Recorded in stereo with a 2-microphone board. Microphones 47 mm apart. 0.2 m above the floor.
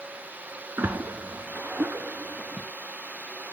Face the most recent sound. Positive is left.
turn(degrees=-65)  # may be behind; listen again after turning